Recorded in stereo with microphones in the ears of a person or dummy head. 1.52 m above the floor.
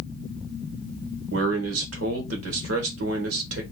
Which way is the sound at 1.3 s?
85° right.